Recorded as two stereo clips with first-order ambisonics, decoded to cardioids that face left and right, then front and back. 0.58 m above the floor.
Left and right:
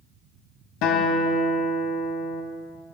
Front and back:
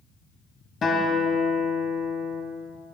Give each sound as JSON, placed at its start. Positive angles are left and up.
{"t": 0.8, "sound": "a guitar", "azimuth_deg": 65, "distance_m": 1.7}